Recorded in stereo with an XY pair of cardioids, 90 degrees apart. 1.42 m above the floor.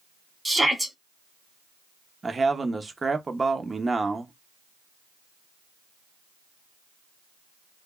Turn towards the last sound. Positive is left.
turn(degrees=-30)